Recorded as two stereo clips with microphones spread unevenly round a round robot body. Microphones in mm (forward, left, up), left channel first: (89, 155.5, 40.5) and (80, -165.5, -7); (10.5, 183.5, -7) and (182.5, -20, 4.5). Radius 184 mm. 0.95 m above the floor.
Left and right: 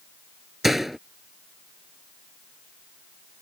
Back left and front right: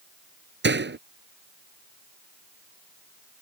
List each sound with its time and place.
0.6 s a door slam: straight ahead